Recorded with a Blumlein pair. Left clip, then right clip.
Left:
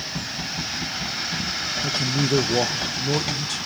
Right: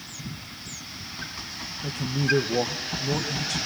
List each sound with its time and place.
1.8 s a man speaking: 10° left, 1.6 m